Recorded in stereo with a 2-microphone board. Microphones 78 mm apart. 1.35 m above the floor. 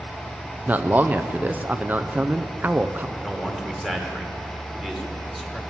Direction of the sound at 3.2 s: 5° left (ahead or behind).